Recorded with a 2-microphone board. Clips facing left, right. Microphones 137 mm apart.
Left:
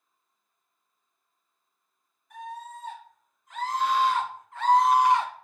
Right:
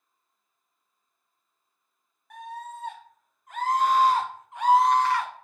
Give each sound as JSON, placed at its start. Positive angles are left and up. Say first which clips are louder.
{"t": 2.3, "sound": "a scream", "louder": "right 1 dB", "side_deg": -65, "distance_m": 1.5}